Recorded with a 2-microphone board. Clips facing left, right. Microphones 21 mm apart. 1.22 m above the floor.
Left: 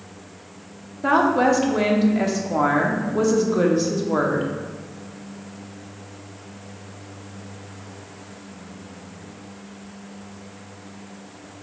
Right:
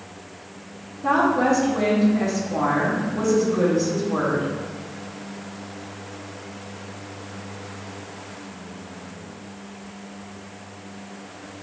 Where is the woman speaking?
50° left (ahead or behind), 0.7 m.